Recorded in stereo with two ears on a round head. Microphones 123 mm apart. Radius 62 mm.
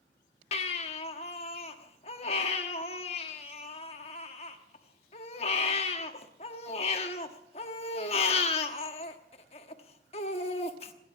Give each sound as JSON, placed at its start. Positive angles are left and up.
{"t": 0.5, "sound": "a baby crying", "side_deg": 45, "distance_m": 1.2}